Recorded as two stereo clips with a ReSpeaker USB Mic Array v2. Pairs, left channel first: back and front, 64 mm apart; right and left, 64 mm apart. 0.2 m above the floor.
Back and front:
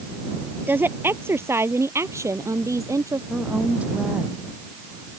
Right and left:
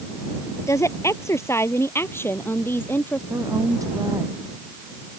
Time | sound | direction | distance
0.7 | a woman speaking | 55° right | ?
3.3 | a woman speaking | 70° left | ?